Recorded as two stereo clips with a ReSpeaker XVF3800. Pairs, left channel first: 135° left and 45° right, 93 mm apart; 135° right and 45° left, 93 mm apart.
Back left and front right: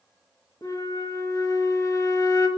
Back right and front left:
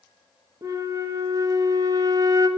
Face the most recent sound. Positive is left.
turn(degrees=85)